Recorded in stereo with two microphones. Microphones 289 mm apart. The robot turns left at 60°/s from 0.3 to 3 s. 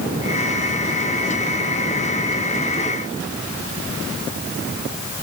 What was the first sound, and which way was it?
Only background noise.